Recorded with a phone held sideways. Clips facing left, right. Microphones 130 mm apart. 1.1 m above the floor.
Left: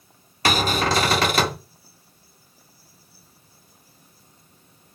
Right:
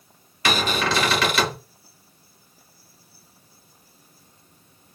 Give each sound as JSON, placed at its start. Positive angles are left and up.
{"t": 0.5, "sound": "a cupboard door", "side_deg": 40, "distance_m": 0.8}